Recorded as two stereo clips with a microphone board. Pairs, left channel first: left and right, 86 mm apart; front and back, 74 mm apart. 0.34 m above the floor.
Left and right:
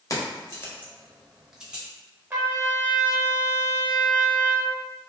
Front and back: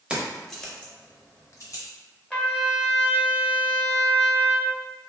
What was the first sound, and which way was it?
Keys jangling, 110° left.